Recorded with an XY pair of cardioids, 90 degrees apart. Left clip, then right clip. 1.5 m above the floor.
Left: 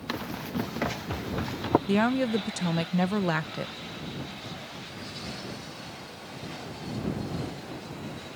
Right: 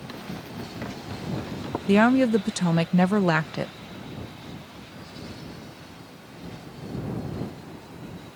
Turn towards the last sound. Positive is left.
turn(degrees=-45)